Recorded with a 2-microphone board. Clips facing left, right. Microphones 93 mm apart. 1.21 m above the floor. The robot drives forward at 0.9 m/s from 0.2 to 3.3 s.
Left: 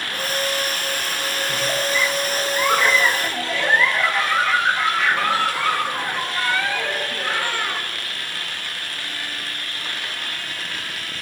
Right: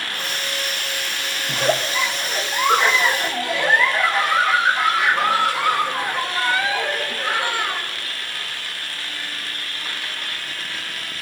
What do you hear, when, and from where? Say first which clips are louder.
1.5 s a giggle: right 4 dB; 55° right (ahead or behind), 0.7 m; by 7.9 s 15° right (ahead or behind), 2.0 m